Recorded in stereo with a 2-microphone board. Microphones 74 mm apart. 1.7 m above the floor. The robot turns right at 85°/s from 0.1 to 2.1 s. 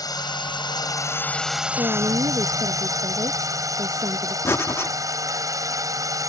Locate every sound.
0.0 s a drone: 60° left; by 6.3 s 130° right
1.8 s a woman speaking: 65° right (ahead or behind); by 4.3 s 70° right (ahead or behind)
4.5 s breathing: 35° left (ahead or behind)